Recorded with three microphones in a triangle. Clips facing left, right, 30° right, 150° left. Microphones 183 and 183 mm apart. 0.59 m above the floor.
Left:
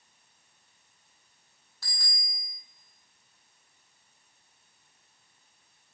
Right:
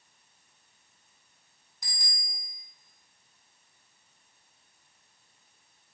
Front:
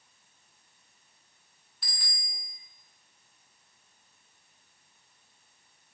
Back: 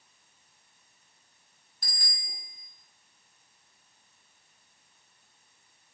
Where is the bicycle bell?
165° right, 4 m.